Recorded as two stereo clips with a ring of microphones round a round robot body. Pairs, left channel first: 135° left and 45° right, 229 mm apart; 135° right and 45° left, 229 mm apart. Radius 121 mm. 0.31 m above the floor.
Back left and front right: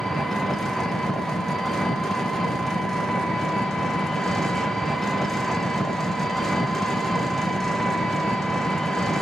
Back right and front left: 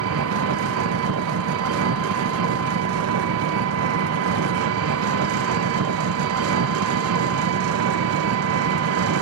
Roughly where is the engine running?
Ahead left.